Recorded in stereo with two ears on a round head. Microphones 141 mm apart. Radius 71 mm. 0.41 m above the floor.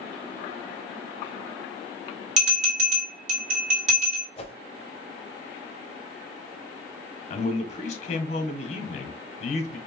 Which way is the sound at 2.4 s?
50° right (ahead or behind).